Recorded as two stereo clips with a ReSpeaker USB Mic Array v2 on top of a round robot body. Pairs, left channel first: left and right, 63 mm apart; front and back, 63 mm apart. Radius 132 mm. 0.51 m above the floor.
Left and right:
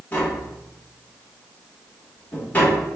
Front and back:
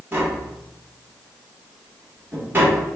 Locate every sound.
0.1 s tapping: 140° left, 1.6 m